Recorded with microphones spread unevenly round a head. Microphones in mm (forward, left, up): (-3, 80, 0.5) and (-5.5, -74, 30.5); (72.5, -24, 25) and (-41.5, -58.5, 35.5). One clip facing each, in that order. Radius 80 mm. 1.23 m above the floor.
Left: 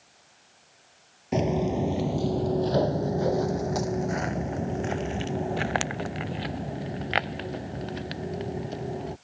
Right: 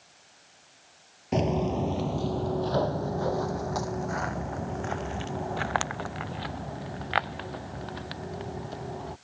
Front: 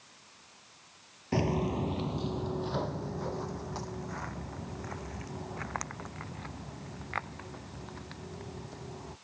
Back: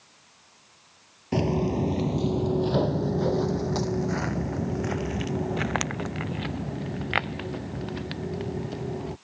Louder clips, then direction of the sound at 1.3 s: Left 1 dB, back 5 dB; 170° right.